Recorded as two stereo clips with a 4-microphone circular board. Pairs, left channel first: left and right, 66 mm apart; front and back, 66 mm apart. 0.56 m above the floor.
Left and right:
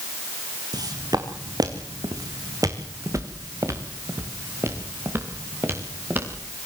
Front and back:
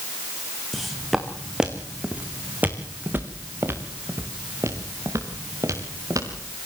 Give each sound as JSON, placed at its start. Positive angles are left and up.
{"t": 0.7, "sound": "footsteps", "azimuth_deg": -90, "distance_m": 2.5}